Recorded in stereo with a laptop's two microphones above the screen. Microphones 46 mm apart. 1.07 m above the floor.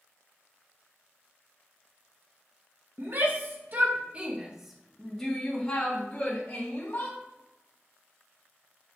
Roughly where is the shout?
Right.